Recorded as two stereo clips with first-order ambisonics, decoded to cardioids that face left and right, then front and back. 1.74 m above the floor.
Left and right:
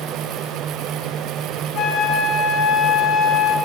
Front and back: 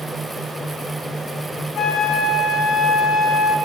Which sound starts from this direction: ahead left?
A flute, at 1.8 s.